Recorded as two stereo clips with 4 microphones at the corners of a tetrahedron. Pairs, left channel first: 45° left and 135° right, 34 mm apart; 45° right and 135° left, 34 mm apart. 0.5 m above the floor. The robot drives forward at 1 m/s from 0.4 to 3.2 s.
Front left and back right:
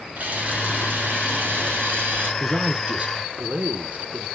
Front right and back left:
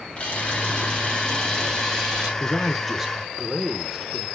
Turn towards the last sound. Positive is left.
turn(degrees=-155)